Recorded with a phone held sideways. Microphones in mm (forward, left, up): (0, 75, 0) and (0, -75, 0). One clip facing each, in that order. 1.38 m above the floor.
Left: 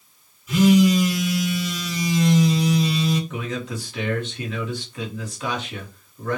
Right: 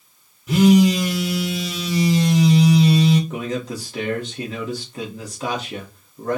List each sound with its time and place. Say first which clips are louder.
0.5 s a phone buzzing: right 2 dB; 70° right (ahead or behind), 1.7 m
3.3 s a man speaking: right 3 dB; 35° right (ahead or behind), 1.4 m